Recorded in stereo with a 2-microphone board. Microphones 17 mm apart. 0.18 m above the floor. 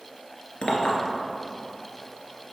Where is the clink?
55° left (ahead or behind), 1.7 m.